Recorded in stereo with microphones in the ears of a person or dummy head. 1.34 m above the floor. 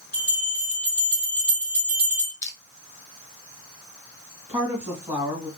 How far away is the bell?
About 1.8 m.